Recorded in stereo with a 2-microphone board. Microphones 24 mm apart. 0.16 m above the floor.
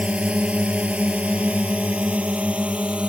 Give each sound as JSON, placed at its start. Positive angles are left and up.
{"t": 0.0, "sound": "a drone", "side_deg": -60}